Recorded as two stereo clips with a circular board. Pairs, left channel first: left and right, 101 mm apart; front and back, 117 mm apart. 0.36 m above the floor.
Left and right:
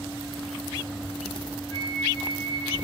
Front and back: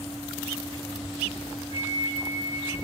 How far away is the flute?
About 5 m.